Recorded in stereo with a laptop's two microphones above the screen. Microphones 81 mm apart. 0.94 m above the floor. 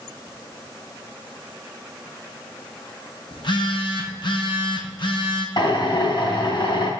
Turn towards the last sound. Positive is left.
turn(degrees=65)  # may be behind; listen again after turning